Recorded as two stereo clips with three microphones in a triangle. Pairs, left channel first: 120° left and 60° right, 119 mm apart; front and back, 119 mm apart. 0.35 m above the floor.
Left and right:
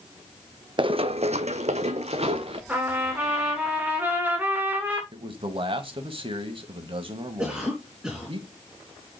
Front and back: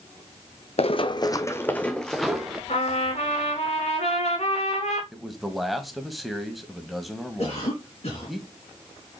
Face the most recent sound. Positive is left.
turn(degrees=20)